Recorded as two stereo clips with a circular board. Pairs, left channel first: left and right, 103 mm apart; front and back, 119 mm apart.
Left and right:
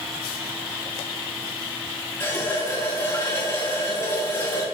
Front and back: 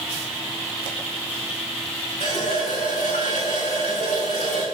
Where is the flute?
No flute in this recording.